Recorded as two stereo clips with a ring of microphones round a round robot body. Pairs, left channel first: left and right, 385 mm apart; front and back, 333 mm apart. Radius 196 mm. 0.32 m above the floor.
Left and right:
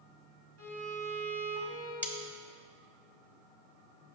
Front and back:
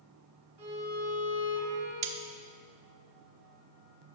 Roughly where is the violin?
Behind right.